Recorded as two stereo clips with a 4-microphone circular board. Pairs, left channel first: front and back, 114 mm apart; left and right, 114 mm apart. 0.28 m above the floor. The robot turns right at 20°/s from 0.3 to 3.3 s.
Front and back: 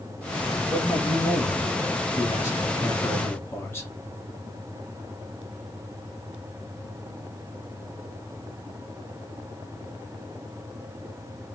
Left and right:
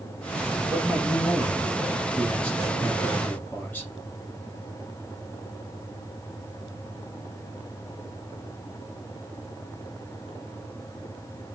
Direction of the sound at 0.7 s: 15° right.